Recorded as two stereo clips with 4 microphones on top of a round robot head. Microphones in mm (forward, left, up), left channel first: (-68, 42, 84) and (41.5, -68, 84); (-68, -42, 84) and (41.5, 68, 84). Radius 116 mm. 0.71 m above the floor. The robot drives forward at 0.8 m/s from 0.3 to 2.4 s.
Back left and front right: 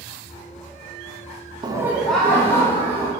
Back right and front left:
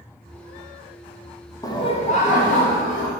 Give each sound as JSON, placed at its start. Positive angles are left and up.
{"t": 1.6, "sound": "laughter", "azimuth_deg": -85, "distance_m": 0.6}